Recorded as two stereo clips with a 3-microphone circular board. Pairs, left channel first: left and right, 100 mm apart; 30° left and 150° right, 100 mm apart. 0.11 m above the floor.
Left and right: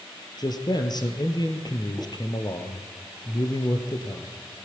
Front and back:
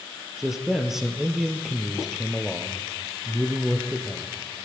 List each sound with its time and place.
0.4 s a man speaking: 125° left, 3 m